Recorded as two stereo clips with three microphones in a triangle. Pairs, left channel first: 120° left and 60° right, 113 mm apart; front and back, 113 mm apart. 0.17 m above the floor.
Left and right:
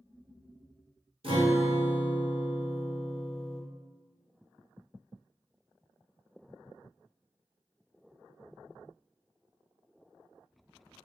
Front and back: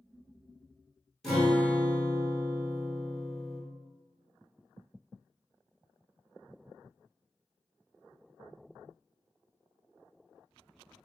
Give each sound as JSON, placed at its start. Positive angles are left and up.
{"t": 1.2, "sound": "a guitar", "azimuth_deg": -90, "distance_m": 1.5}